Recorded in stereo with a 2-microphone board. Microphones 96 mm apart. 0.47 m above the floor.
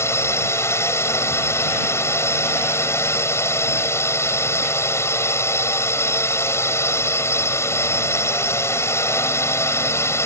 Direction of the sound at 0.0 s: 30° left (ahead or behind).